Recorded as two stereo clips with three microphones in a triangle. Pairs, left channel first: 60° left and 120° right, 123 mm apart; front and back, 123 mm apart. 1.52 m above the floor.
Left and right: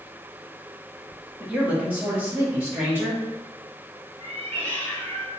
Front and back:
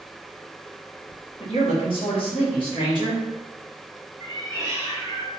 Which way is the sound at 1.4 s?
40° right.